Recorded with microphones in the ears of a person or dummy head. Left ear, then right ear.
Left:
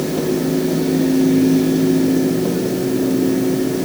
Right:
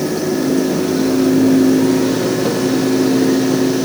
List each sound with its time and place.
Only background noise.